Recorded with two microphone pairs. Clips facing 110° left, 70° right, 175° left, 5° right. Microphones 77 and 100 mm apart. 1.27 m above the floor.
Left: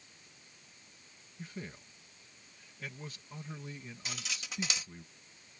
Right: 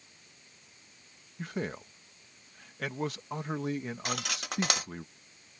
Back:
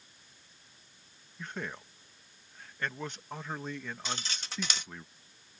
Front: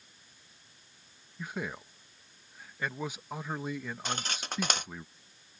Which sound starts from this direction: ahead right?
Cutlery clinking, at 4.0 s.